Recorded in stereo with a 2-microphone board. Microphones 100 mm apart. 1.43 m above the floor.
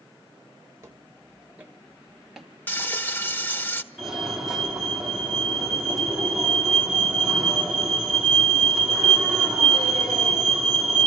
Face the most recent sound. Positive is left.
turn(degrees=-5)  # may be behind; listen again after turning